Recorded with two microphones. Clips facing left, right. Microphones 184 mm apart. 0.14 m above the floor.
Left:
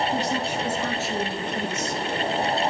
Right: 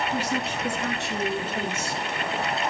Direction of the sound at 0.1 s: 20° left (ahead or behind).